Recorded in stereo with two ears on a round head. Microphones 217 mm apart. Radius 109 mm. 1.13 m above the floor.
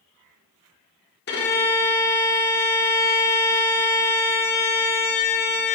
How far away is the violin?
About 1.7 m.